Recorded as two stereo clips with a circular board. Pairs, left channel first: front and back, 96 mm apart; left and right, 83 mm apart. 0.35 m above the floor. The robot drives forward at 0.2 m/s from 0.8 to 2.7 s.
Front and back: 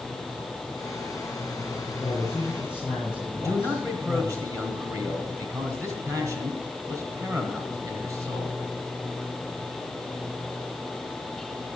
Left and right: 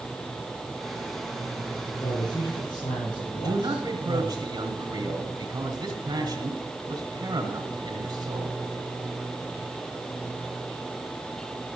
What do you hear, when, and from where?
2.0 s a man speaking: 70° left, 4.5 m
3.4 s a man speaking: 125° right, 2.5 m